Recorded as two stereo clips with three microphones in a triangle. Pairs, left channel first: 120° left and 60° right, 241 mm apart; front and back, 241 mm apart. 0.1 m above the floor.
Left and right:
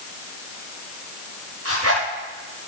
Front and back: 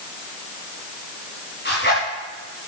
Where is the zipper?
45° right, 10 m.